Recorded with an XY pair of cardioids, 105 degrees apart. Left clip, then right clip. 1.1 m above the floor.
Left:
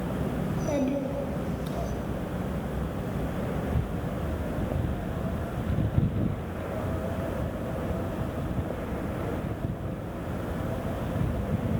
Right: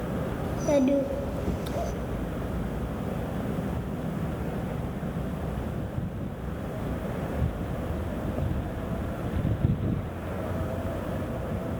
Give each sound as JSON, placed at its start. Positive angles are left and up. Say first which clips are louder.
{"t": 0.4, "sound": "a child speaking", "louder": "right 6 dB", "azimuth_deg": -35, "distance_m": 1.3}